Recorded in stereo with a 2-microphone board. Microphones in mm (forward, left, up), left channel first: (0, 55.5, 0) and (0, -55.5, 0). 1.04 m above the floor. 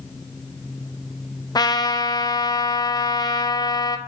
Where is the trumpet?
35° left (ahead or behind), 0.6 m.